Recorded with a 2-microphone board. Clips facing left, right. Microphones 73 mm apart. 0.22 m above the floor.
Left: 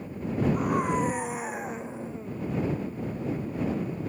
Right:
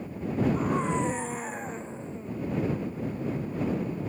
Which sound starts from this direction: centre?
A scream, at 0.5 s.